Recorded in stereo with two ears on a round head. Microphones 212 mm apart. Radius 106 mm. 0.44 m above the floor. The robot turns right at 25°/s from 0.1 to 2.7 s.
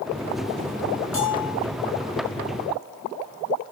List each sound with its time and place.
1.1 s a bell: 55° left (ahead or behind), 5 m; by 1.6 s 65° left (ahead or behind), 5 m